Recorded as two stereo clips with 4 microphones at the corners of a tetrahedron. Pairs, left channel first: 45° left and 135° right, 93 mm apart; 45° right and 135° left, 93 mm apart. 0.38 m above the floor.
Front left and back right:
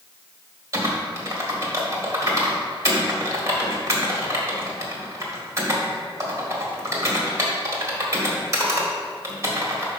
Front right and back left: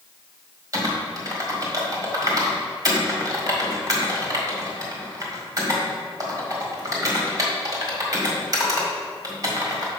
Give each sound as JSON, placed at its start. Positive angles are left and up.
{"t": 0.7, "sound": "typing on a keyboard", "azimuth_deg": 170, "distance_m": 1.8}